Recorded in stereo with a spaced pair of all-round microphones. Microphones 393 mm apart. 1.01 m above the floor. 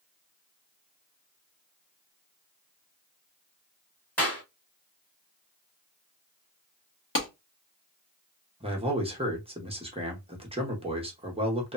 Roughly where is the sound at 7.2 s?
Left.